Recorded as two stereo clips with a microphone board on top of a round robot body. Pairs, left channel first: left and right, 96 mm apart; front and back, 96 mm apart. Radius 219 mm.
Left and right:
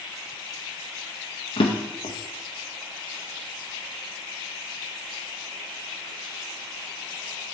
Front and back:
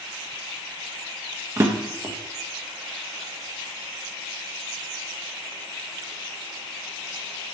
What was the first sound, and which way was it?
A drawer, 120° left.